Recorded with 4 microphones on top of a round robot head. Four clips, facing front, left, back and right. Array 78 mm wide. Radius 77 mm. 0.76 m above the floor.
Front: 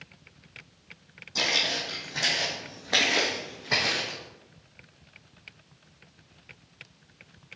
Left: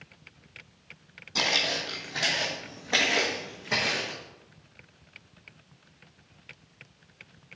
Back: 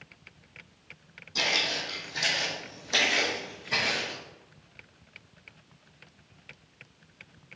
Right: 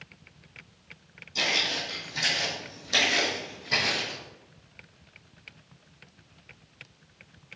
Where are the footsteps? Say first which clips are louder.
Left 1 dB, front 1 dB; 80° left, 2.5 m; by 4.2 s 20° left, 3.5 m.